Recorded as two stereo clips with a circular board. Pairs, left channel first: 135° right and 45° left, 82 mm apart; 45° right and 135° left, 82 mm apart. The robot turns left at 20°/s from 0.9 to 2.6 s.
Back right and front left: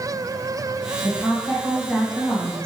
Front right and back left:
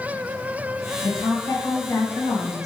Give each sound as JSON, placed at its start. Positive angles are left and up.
{"t": 1.0, "sound": "a woman speaking", "azimuth_deg": -30, "distance_m": 1.5}